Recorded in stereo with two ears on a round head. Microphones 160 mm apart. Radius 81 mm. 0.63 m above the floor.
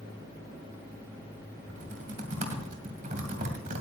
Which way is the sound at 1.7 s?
45° right (ahead or behind).